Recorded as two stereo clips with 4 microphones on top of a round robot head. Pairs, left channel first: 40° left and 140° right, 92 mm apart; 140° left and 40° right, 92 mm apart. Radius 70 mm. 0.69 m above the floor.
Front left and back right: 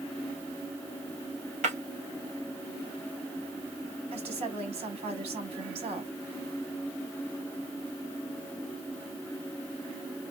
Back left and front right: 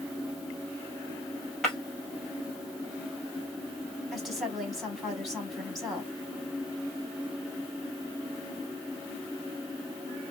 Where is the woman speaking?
125° right, 2.5 m.